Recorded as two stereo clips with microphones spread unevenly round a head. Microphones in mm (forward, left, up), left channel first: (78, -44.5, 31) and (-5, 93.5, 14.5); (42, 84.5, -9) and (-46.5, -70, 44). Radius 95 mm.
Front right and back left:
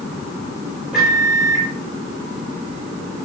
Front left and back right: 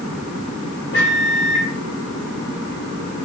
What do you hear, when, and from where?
0.9 s a microwave: 35° left, 2.0 m